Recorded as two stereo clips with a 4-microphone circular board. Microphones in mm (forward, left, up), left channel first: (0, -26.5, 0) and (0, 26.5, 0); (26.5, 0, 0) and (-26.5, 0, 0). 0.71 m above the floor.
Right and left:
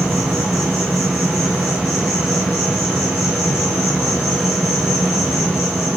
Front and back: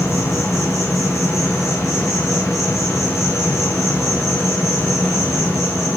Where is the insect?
15° left, 1.5 m.